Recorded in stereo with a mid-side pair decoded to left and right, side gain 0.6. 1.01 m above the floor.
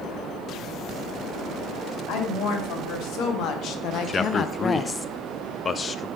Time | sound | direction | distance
2.1 | a woman speaking | 60° left | 2 m
4.1 | a man speaking | 30° left | 0.5 m